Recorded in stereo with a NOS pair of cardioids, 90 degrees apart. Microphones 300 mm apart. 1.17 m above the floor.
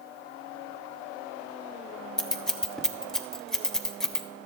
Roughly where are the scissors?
Ahead.